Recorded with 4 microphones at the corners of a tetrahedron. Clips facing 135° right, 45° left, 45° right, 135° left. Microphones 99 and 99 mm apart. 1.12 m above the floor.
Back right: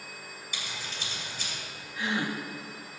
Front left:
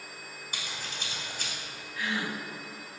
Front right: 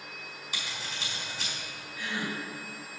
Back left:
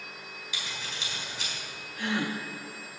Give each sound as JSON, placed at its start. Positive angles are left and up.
{"t": 0.5, "sound": "scissors", "azimuth_deg": 5, "distance_m": 3.5}
{"t": 2.0, "sound": "a gasp", "azimuth_deg": 160, "distance_m": 0.9}